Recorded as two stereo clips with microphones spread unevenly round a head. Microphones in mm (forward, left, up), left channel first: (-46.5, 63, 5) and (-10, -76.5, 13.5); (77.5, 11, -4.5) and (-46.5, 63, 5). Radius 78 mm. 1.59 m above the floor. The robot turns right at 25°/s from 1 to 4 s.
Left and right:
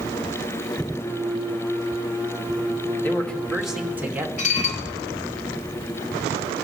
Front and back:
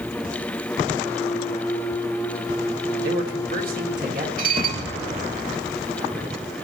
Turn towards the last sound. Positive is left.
turn(degrees=145)